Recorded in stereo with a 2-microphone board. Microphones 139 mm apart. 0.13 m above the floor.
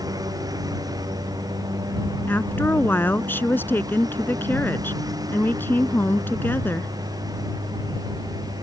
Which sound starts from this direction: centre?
A woman speaking, at 2.3 s.